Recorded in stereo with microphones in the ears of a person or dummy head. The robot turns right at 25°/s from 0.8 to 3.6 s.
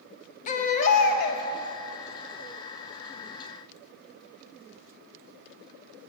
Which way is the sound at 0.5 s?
40° left (ahead or behind).